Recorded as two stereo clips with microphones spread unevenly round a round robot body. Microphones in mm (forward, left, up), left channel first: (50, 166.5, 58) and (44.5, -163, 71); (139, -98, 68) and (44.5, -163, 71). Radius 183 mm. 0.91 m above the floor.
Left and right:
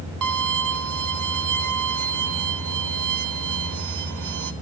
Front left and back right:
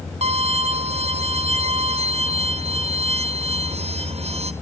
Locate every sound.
0.2 s a violin: 120° right, 1.3 m